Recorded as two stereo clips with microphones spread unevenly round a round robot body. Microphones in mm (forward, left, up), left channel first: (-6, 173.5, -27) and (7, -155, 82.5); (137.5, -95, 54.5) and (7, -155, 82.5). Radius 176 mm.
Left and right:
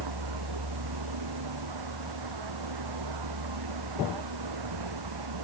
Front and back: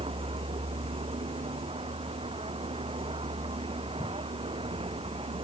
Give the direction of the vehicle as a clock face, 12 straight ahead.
4 o'clock.